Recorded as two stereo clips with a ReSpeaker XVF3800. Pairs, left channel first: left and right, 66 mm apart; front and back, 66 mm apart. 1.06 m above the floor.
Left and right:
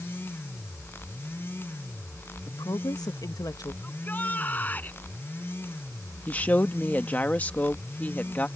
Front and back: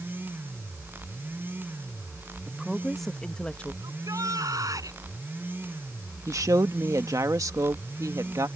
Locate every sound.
2.5 s a woman speaking: 100° left; by 3.7 s 70° left
3.8 s a shout: 155° left
6.3 s a woman speaking: 155° left